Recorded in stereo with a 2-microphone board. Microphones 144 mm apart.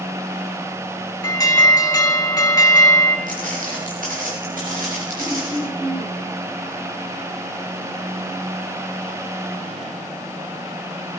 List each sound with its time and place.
1.2 s an alarm: 25° left (ahead or behind), 2 m
3.3 s footsteps: 65° right (ahead or behind), 6.5 m; by 5.6 s 75° right (ahead or behind), 9.5 m
5.2 s throat clearing: 35° right (ahead or behind), 4 m